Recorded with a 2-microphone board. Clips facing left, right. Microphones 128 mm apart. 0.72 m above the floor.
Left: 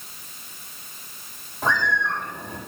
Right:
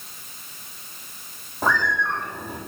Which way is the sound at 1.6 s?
45° right (ahead or behind).